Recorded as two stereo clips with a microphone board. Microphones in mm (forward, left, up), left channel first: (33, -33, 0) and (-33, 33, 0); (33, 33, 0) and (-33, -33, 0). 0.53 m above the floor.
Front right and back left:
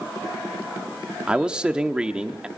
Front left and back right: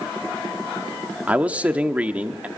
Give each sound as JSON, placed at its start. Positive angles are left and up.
{"t": 1.3, "sound": "a man speaking", "azimuth_deg": -170, "distance_m": 0.9}